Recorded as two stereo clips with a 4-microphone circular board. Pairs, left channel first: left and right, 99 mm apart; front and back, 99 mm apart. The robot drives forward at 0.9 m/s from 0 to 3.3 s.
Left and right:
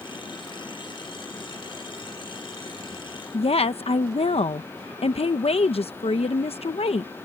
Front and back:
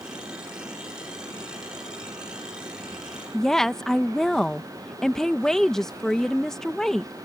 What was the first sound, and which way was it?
A woman speaking, 85° left.